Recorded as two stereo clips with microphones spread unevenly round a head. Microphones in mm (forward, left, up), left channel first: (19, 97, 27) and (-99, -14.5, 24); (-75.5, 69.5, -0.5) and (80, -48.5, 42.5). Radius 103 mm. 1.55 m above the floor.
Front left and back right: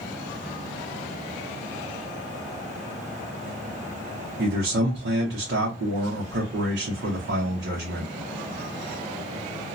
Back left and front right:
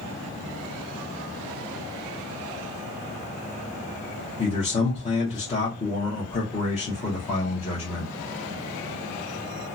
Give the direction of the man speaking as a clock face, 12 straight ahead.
5 o'clock.